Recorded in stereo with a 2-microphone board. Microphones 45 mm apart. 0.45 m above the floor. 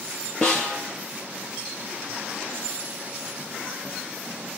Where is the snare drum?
15° left (ahead or behind), 4.5 m.